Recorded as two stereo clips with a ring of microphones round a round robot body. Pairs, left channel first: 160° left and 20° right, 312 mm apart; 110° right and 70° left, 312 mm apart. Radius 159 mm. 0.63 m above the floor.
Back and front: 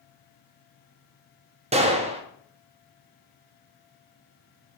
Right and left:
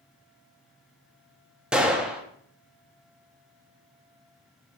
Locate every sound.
1.7 s a gunshot: 15° right, 0.8 m